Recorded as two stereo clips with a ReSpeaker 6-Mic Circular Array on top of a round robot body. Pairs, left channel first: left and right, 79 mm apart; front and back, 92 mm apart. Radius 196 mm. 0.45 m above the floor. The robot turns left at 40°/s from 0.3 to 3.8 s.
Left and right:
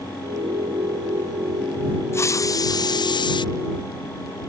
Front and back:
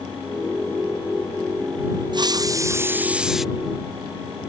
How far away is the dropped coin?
I don't hear a dropped coin.